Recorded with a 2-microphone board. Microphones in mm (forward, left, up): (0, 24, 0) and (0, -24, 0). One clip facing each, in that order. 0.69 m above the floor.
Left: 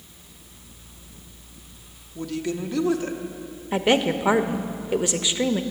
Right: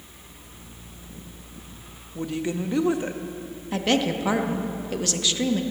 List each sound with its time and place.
2.1 s a woman speaking: 20° right (ahead or behind), 0.7 m
3.7 s a woman speaking: 20° left (ahead or behind), 0.6 m